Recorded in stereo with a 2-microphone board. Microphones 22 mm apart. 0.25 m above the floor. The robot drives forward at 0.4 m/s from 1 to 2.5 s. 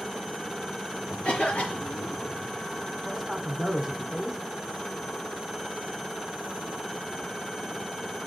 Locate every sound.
1.2 s a cough: 65° left (ahead or behind), 5 m; by 2.2 s 60° left (ahead or behind), 5 m
3.0 s a man speaking: centre (ahead or behind), 1.7 m